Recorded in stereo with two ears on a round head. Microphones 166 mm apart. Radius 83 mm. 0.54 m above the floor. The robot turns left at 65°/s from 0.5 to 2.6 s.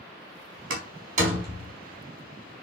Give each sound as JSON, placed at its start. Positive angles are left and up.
{"t": 0.7, "sound": "a door slam", "side_deg": -70, "distance_m": 3.5}